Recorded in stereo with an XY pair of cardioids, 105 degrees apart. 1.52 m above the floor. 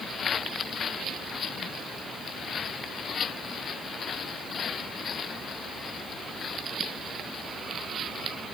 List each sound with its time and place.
Only background noise.